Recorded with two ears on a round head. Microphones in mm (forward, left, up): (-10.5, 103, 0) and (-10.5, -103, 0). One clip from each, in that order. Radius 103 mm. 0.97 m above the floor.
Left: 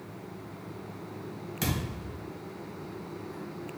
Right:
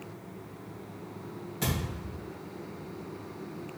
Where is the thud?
25° left (ahead or behind), 1.9 m.